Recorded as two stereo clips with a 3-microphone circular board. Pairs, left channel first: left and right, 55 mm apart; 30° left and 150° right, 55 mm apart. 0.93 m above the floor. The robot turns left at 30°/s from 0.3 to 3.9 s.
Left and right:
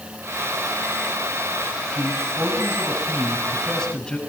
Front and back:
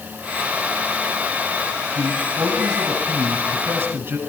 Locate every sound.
1.9 s a man speaking: 135° right, 8.5 m; by 4.2 s 165° left, 8.5 m